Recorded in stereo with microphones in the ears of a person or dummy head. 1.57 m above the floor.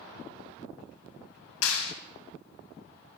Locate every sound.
1.6 s a clap: 85° left, 1.7 m